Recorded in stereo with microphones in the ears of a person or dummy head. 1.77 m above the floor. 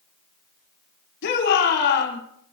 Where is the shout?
70° left (ahead or behind), 6.5 m.